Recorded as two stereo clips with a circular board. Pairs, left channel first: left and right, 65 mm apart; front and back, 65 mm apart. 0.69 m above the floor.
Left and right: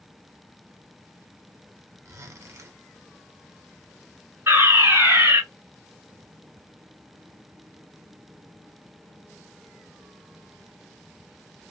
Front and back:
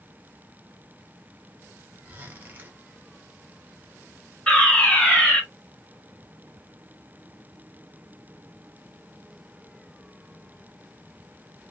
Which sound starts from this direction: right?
A fire alarm, at 4.5 s.